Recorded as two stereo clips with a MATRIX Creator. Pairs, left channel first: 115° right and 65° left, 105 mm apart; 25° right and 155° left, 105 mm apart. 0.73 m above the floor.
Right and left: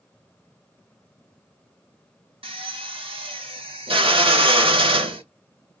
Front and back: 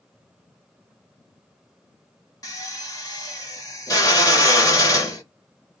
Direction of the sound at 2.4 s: 35° left.